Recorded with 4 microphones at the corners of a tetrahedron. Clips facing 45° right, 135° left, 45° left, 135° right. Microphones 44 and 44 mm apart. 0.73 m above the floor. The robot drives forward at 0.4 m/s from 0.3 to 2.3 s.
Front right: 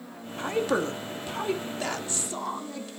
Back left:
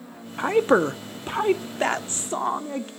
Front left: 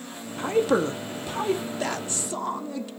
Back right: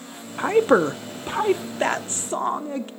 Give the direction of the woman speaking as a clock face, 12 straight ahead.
6 o'clock.